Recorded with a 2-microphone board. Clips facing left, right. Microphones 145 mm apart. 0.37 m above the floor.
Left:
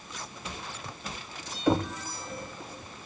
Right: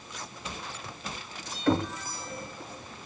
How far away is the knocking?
About 0.8 m.